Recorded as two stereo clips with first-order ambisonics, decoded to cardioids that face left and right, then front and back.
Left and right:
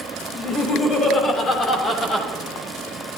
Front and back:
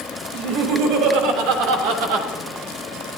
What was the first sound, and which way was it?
Laughter, 155° left.